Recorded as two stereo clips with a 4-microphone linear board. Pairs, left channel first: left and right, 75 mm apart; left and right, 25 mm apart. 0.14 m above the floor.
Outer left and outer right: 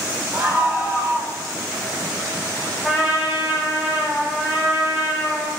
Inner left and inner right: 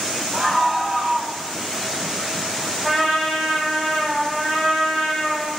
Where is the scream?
15° right (ahead or behind), 6.5 m; by 1.4 s 20° right (ahead or behind), 6.5 m.